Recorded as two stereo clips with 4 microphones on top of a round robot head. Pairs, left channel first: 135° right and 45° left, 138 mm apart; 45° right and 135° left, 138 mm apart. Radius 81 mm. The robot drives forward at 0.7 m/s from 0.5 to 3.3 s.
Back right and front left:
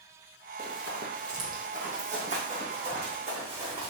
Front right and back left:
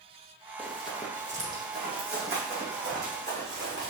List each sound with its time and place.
0.6 s running footsteps: 40° left, 2 m; by 3.9 s 95° left, 4.5 m